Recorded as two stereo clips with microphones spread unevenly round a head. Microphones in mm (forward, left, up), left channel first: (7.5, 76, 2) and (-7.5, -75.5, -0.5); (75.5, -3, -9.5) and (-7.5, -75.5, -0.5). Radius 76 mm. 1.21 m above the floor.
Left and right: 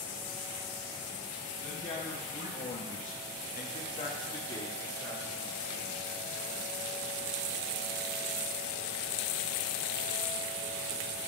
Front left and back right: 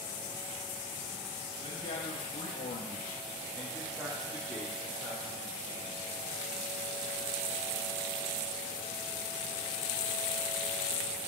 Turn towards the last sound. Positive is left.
turn(degrees=165)